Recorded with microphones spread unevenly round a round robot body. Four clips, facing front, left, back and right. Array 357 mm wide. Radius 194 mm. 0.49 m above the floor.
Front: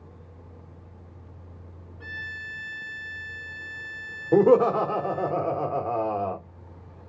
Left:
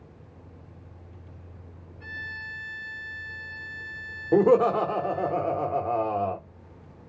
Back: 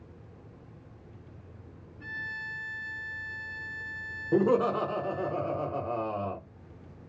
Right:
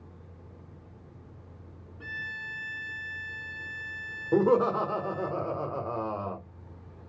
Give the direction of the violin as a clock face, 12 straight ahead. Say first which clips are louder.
Even, front 1 dB; 4 o'clock.